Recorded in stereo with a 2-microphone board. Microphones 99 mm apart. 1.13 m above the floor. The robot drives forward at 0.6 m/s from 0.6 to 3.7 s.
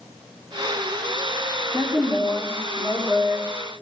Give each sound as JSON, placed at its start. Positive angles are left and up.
{"t": 1.7, "sound": "a woman speaking", "side_deg": -15, "distance_m": 3.5}